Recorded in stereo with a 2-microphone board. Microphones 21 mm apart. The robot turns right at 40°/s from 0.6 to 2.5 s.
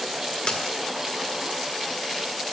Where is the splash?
50° left (ahead or behind), 2.5 m.